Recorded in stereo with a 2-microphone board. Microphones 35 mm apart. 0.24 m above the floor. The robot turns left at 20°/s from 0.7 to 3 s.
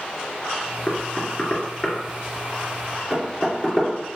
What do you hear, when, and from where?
0.9 s knocking: 30° left (ahead or behind), 2.5 m; by 3.9 s 10° right (ahead or behind), 2.5 m